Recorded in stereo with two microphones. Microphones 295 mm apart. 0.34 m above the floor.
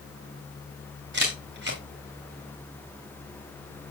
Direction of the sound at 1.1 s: 40° right (ahead or behind).